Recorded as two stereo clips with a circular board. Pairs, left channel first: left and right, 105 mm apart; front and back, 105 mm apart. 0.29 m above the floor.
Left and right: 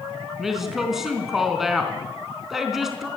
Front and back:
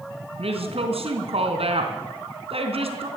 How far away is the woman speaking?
About 3.5 m.